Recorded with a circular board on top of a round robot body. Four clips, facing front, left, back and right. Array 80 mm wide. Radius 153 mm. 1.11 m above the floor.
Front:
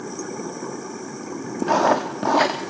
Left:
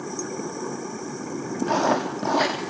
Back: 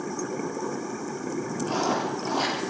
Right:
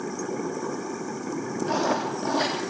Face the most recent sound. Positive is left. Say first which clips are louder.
# left 4 dB, front 9 dB
turn(degrees=10)